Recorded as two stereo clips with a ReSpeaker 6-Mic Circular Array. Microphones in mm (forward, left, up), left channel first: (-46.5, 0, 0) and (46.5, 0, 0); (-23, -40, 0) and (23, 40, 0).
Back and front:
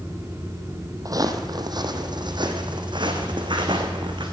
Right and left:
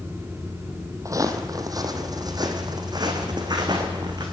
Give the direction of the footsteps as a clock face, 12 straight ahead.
11 o'clock.